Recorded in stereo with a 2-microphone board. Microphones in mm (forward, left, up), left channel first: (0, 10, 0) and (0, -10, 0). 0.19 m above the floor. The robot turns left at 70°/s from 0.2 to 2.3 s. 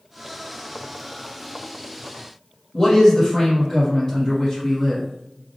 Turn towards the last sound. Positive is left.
turn(degrees=25)  # may be behind; listen again after turning